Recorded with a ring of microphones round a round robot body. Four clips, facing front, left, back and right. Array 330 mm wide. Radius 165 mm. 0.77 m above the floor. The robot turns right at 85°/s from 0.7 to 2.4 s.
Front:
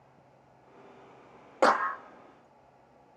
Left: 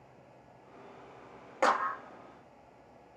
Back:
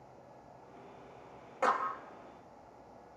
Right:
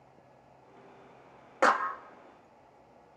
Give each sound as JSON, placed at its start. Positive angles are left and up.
{"t": 1.6, "sound": "a clap", "azimuth_deg": -20, "distance_m": 0.7}